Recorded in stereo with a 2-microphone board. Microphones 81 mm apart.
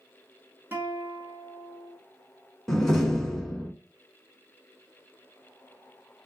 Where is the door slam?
5° left (ahead or behind), 0.9 m.